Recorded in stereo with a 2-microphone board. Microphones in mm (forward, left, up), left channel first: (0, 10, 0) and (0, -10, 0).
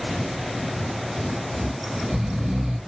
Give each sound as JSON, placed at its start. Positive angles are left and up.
{"t": 1.5, "sound": "snoring", "side_deg": -40, "distance_m": 1.9}